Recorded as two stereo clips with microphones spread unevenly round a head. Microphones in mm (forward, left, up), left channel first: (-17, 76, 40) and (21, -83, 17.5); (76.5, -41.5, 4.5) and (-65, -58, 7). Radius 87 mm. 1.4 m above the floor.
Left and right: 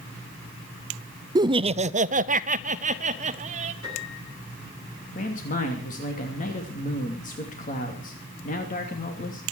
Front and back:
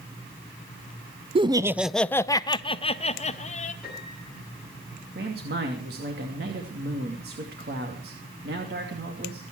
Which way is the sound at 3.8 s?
100° left.